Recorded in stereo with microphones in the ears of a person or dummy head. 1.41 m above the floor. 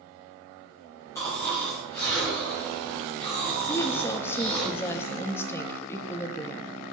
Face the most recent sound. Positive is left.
turn(degrees=15)  # may be behind; listen again after turning